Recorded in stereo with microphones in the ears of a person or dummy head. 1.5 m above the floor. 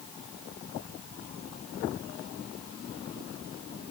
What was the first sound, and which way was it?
Only background noise.